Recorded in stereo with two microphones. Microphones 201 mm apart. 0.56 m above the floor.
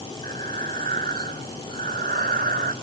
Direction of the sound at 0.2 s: 50° right (ahead or behind).